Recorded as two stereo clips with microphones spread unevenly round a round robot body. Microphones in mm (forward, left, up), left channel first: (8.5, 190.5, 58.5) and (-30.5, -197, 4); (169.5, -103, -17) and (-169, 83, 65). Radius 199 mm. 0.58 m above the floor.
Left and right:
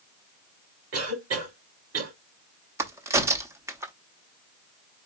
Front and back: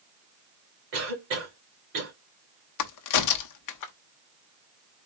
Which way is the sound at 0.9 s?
150° right.